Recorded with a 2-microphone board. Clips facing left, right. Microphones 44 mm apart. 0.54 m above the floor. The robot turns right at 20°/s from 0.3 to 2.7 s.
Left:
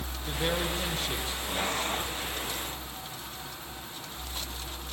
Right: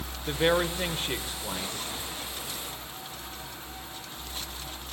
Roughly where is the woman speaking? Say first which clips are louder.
Right 6 dB; ahead right.